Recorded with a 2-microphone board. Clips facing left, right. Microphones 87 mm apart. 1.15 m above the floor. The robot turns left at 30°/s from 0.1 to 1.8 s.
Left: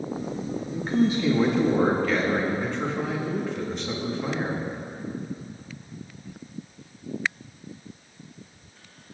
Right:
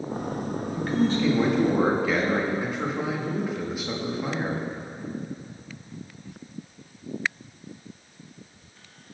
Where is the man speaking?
25° left, 1.5 m; by 4.6 s 5° right, 1.5 m.